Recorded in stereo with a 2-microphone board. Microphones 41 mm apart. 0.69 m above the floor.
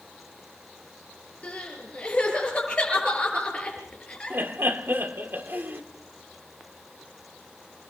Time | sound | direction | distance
1.4 | crying | 25° left (ahead or behind) | 6 m
4.3 | laughter | 60° right (ahead or behind) | 1.9 m